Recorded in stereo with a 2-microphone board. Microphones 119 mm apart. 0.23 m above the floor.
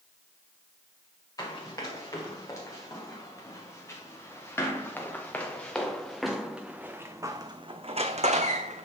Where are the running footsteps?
30° left (ahead or behind), 3.5 m; by 8.8 s 80° right, 1.0 m.